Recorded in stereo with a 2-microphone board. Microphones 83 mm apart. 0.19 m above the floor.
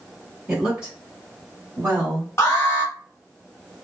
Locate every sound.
0.5 s a woman speaking: 10° right (ahead or behind), 1.5 m; by 2.3 s 25° right (ahead or behind), 1.3 m
2.4 s an alarm: 30° left (ahead or behind), 1.0 m